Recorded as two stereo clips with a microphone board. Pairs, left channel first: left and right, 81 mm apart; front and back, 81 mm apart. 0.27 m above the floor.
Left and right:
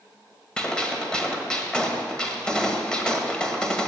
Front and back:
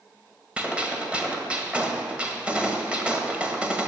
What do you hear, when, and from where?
0.6 s a gunshot: 145° left, 1.5 m